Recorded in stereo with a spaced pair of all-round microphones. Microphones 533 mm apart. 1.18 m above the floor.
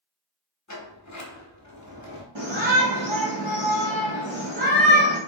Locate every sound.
0.7 s a sliding door: 35° left (ahead or behind), 0.7 m
2.4 s a shout: 55° right (ahead or behind), 1.1 m